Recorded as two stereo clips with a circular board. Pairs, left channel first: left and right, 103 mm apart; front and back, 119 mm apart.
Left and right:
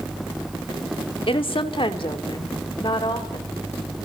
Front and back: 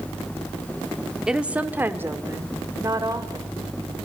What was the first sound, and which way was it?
A woman speaking, 95° left.